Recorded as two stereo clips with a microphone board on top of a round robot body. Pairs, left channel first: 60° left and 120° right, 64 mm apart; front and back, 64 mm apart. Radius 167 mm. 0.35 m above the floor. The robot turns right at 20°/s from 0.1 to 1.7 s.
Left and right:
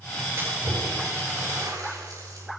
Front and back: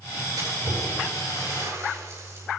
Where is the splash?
175° right, 9.5 m; by 2.5 s 145° right, 9.5 m.